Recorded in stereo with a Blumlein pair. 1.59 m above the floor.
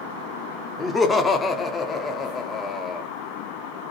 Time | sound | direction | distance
0.8 | laughter | 15° left | 0.5 m